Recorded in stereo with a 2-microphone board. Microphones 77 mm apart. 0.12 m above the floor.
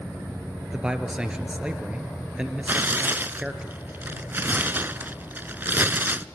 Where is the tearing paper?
25° right (ahead or behind), 0.5 m.